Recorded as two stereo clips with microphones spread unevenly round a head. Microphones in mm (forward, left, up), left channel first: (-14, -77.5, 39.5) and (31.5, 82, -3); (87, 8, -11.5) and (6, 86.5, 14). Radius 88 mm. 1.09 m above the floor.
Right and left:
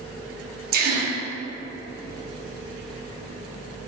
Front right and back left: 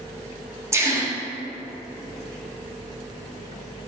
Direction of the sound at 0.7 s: 65° left.